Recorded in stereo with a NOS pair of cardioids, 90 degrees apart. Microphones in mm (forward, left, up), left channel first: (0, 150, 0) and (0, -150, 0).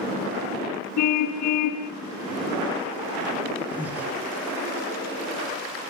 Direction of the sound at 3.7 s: 5° right.